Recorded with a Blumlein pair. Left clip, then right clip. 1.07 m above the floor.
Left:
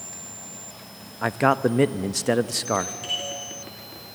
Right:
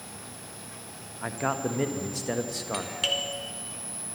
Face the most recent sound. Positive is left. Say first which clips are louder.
# right 3 dB
turn(degrees=-60)